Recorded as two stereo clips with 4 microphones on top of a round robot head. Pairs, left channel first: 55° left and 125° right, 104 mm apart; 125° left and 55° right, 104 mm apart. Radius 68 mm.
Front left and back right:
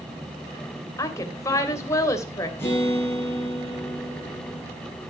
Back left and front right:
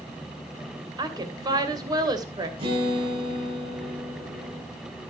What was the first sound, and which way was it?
A woman speaking, 5° right.